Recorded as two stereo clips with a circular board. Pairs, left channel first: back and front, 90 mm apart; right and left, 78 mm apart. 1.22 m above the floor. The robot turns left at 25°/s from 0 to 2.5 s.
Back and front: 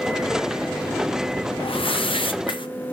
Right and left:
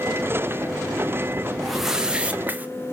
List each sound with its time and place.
1.6 s a whoosh: straight behind, 0.8 m; by 2.7 s 155° left, 0.8 m